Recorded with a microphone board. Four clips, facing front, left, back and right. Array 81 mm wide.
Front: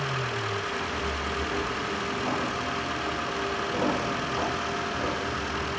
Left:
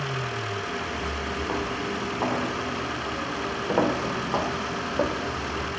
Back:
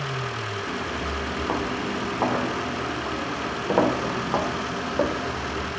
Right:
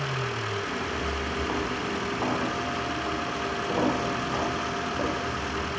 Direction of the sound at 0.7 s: 175° right.